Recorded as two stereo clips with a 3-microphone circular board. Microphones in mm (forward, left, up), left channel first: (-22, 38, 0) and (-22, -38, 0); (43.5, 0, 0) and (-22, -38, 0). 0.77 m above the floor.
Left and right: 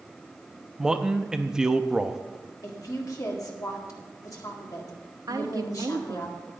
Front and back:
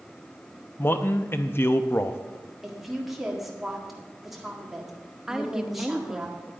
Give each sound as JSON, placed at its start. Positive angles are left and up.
{"t": 0.8, "sound": "a man speaking", "azimuth_deg": -15, "distance_m": 0.7}
{"t": 2.6, "sound": "a woman speaking", "azimuth_deg": 125, "distance_m": 1.7}
{"t": 5.3, "sound": "a woman speaking", "azimuth_deg": -70, "distance_m": 0.8}